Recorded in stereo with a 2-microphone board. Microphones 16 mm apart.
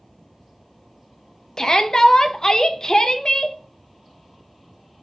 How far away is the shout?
About 0.6 m.